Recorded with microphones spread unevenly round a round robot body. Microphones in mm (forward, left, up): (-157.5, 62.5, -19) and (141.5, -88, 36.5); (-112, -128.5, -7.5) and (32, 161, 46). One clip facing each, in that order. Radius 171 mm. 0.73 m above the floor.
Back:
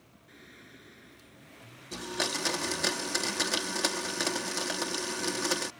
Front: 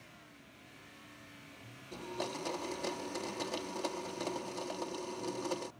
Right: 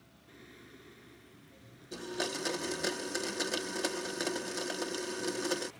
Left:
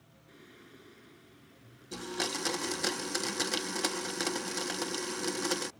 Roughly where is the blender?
Behind left.